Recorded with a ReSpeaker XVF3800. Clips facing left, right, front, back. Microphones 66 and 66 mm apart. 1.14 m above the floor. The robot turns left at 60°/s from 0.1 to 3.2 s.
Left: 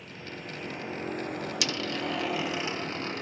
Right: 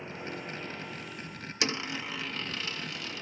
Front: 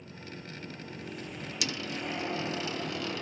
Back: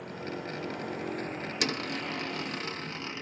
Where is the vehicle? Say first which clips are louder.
Right 2 dB, back 8 dB; 160° right; by 3.2 s 15° left.